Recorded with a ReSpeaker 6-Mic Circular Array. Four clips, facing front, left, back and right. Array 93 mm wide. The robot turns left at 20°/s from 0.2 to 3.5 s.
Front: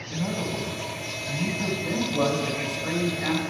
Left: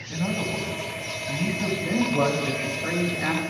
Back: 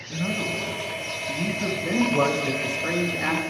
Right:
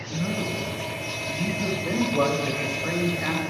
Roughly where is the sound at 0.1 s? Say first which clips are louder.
Left 1 dB, back 1 dB; ahead left.